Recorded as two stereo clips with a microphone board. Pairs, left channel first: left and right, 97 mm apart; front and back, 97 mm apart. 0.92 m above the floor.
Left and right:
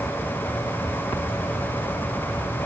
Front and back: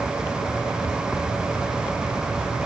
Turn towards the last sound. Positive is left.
No sound to turn to.